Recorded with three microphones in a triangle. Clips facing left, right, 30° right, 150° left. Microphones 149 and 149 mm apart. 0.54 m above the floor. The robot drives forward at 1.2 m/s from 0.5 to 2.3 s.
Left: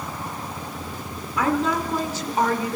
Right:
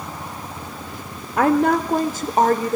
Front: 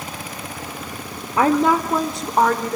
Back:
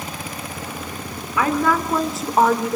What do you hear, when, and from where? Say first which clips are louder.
1.4 s a woman speaking: right 6 dB, front 3 dB; 75° right, 1.4 m; by 2.8 s 125° right, 1.6 m